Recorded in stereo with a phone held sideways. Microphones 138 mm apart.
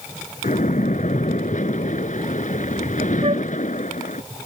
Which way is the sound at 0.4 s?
70° left (ahead or behind).